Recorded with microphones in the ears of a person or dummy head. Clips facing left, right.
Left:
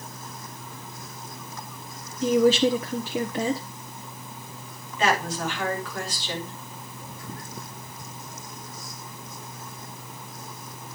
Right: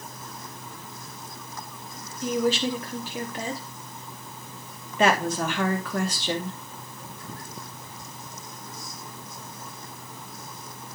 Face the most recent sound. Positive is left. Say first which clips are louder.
# right 3 dB
turn(degrees=-45)  # may be behind; listen again after turning